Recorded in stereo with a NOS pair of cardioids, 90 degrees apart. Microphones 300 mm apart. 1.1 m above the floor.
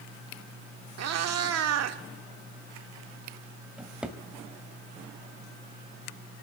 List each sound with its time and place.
1.0 s a cat meowing: 60° right, 1.6 m
3.8 s a drawer: 5° right, 2 m